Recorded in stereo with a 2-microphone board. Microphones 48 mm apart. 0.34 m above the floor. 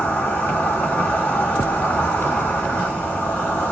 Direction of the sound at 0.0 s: 55° left (ahead or behind).